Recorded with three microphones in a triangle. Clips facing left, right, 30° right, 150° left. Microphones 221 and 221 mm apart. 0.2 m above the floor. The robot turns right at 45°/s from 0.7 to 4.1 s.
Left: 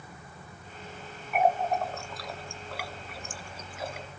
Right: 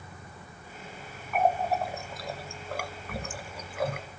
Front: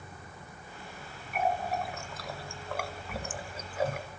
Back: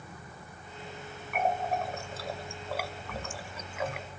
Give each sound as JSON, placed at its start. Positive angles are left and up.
{"t": 1.3, "sound": "a running tap", "azimuth_deg": 170, "distance_m": 2.0}